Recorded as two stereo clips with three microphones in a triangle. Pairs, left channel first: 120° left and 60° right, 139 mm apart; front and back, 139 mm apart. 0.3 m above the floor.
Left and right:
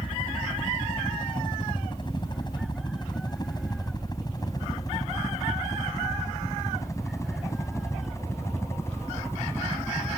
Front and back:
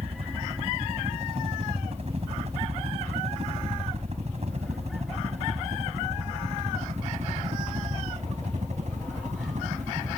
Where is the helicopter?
160° left; by 10.2 s 170° right.